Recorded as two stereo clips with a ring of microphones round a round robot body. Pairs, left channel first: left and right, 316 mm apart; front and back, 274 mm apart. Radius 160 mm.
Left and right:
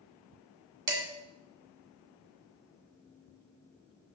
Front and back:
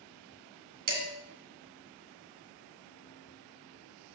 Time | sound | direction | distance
0.9 | dishes clattering | 120° right | 2 m